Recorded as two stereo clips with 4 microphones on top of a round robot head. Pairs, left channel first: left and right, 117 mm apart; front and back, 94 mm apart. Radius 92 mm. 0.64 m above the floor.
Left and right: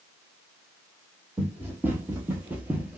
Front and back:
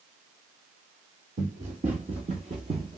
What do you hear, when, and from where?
1.4 s running footsteps: 160° right, 1.7 m